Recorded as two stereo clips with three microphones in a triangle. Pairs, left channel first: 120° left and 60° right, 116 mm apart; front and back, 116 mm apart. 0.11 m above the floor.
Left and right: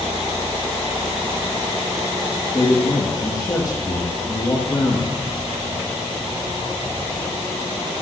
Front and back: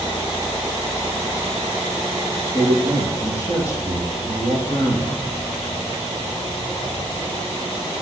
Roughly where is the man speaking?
Ahead left.